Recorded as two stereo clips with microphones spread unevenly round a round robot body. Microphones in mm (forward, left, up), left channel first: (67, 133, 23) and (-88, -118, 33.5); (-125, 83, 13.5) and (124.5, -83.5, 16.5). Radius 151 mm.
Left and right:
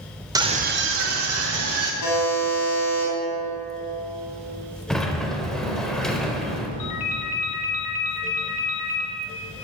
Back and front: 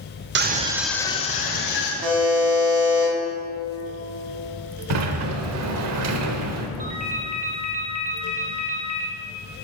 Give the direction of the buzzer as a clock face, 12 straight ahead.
11 o'clock.